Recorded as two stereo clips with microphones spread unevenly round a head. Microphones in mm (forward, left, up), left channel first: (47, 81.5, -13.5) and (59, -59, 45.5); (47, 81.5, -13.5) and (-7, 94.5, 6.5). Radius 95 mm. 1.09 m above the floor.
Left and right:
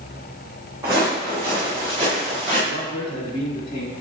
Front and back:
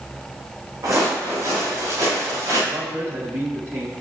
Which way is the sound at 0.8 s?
155° right.